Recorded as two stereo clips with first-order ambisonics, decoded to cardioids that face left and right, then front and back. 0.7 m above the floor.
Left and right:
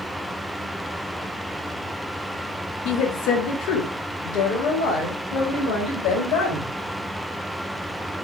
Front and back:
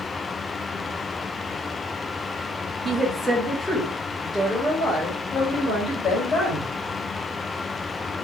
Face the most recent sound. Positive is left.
turn(degrees=65)